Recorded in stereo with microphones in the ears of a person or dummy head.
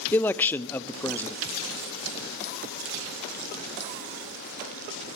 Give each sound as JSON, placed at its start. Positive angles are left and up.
{"t": 0.1, "sound": "a man speaking", "side_deg": 15, "distance_m": 0.5}